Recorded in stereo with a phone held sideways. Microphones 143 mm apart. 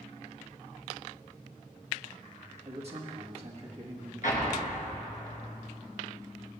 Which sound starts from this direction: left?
An explosion, at 4.2 s.